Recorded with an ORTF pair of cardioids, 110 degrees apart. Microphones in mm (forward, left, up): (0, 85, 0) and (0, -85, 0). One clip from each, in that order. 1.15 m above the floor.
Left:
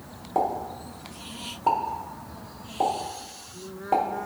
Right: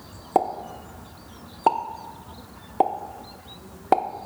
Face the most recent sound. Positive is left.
turn(degrees=-45)